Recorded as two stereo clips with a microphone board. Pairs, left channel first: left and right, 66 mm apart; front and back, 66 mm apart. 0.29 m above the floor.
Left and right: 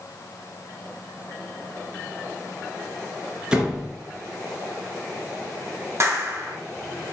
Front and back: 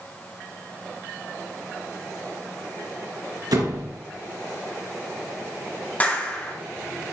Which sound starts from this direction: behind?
A door slam, at 3.5 s.